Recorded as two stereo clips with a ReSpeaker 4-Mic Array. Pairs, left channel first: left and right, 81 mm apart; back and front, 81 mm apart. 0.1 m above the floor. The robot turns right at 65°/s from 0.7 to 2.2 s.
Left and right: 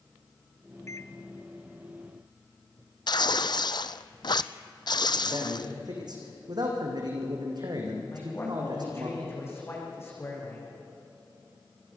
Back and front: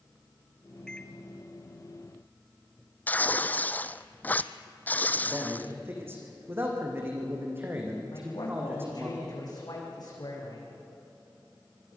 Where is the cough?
I don't hear a cough.